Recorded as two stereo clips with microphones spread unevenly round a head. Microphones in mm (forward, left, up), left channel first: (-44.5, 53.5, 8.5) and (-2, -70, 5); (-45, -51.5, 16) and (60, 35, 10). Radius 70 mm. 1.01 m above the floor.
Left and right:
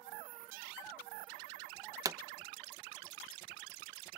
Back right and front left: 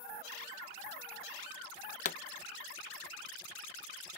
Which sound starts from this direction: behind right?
A pop, at 2.0 s.